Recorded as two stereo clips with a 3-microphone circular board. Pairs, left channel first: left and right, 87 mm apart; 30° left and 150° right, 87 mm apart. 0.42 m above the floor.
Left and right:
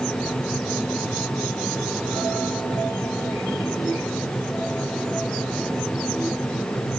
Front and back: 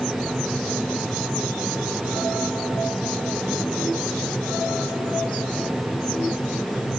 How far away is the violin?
No violin in this recording.